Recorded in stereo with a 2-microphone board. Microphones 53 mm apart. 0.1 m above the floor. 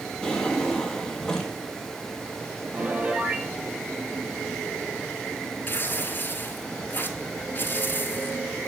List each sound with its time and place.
0.2 s a drawer: 10° left (ahead or behind), 1.4 m
2.7 s a piano: 25° right (ahead or behind), 0.9 m
5.7 s tearing paper: 40° left (ahead or behind), 0.9 m